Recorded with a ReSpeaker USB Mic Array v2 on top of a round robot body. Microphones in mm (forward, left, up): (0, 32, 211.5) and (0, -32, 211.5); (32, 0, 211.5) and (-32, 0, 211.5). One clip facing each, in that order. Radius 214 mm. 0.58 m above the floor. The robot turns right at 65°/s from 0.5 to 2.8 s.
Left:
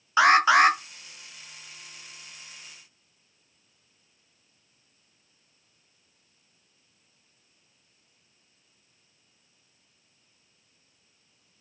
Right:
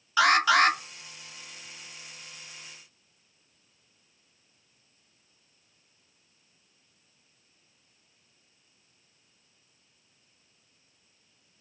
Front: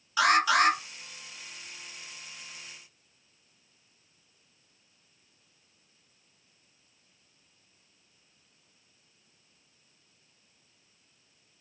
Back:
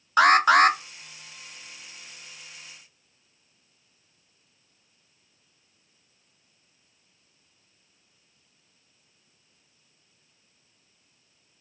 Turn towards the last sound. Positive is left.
turn(degrees=-60)